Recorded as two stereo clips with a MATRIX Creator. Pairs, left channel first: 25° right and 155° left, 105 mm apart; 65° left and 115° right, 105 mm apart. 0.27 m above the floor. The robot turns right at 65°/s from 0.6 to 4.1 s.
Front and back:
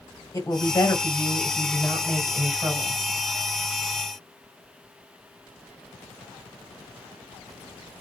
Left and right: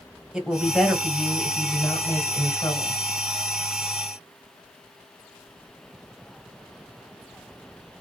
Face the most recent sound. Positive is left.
turn(degrees=-170)